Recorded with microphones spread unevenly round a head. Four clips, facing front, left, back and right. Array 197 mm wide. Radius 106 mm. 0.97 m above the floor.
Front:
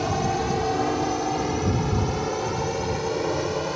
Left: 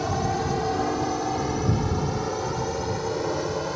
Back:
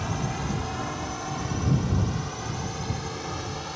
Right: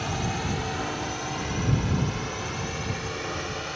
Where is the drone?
25° left; by 3.8 s 30° left.